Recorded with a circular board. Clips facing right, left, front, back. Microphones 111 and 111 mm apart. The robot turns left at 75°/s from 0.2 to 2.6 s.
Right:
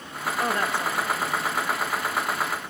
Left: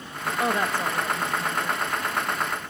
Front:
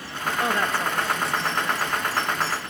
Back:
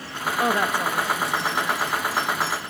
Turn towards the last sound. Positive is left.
turn(degrees=-10)